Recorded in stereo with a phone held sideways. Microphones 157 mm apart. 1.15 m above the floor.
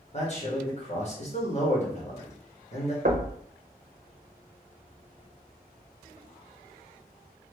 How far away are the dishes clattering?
No dishes clattering in this recording.